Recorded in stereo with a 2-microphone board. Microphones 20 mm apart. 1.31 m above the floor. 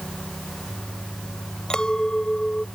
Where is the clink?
45° left (ahead or behind).